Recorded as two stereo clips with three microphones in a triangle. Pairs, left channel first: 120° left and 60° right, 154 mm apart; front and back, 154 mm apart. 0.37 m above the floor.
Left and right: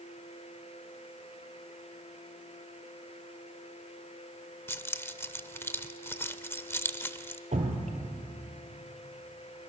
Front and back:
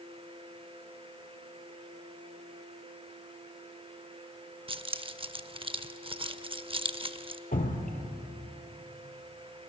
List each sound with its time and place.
4.7 s keys jangling: 175° right, 0.5 m
7.5 s dripping: 20° right, 2.5 m